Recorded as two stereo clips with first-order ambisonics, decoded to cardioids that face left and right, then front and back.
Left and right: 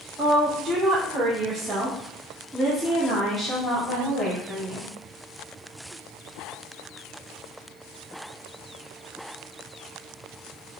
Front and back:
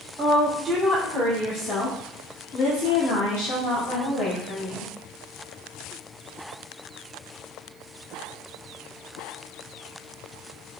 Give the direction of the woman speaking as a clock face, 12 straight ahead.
4 o'clock.